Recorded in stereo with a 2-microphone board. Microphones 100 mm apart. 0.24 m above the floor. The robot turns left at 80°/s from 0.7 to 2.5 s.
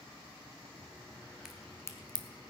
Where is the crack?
5° right (ahead or behind), 1.3 m; by 2.2 s 60° left (ahead or behind), 1.3 m.